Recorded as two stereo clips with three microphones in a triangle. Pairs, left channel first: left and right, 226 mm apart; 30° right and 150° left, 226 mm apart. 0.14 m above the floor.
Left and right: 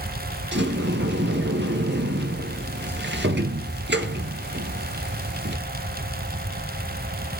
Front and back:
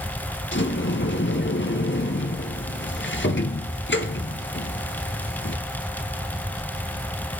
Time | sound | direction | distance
0.5 | a sliding door | 55° right | 1.1 m